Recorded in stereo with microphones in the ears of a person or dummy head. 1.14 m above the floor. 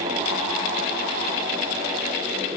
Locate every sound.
Only background noise.